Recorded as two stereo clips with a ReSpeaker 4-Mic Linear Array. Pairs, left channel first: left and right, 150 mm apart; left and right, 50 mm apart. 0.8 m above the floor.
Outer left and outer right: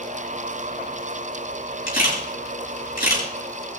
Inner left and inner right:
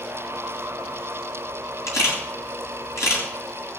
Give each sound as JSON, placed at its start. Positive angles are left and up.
{"t": 1.9, "sound": "a camera shutter", "side_deg": 85, "distance_m": 8.5}